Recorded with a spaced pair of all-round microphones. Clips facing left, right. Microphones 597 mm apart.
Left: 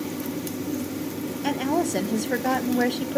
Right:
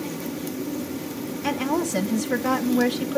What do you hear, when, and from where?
1.4 s a woman speaking: 35° right (ahead or behind), 0.9 m